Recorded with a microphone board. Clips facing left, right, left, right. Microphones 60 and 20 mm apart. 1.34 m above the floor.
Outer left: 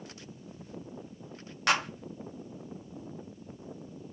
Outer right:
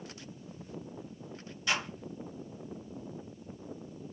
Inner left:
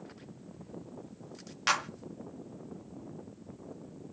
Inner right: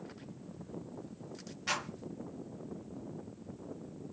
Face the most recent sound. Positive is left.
turn(degrees=65)  # may be behind; listen again after turning